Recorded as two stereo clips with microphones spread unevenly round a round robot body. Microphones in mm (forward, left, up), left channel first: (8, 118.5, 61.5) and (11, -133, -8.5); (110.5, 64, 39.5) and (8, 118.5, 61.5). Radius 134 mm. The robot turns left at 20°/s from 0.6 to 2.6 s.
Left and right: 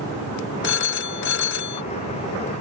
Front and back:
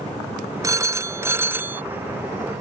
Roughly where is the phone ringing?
Left.